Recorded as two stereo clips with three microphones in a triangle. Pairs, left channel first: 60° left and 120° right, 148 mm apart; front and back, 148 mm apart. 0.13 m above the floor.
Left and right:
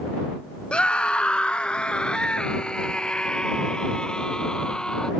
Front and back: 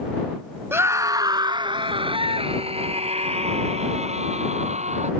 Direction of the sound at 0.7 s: 135° left.